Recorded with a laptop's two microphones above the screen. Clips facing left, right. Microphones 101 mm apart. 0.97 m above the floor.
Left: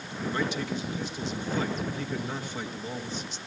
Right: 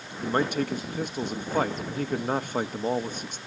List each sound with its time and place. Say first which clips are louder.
0.2 s a man speaking: right 5 dB; 55° right (ahead or behind), 1.0 m